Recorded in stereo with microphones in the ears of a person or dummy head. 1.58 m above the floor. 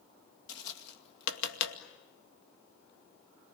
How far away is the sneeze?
No sneeze in this recording.